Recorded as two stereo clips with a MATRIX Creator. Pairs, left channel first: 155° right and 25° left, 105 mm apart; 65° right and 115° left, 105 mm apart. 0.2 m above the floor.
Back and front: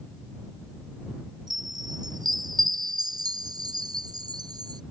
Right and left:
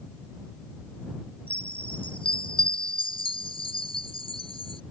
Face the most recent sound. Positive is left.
turn(degrees=-30)